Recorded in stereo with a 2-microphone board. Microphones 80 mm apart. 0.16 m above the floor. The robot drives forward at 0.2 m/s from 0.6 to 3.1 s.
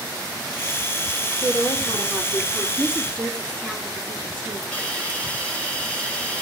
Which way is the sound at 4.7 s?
15° left (ahead or behind).